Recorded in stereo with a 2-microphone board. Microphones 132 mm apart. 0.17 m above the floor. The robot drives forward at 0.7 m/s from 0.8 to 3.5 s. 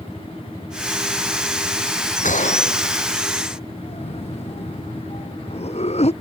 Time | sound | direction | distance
2.2 | a gunshot | 70° left (ahead or behind) | ?
3.8 | a cough | 55° left (ahead or behind) | ?